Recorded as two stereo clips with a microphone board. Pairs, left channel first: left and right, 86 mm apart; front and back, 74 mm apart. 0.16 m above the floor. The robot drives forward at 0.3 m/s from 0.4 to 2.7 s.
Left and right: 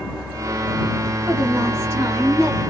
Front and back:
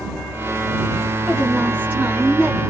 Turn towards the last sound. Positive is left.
turn(degrees=-135)